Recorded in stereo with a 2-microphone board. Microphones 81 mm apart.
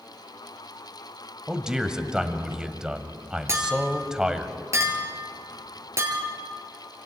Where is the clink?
35° right (ahead or behind), 3.5 m.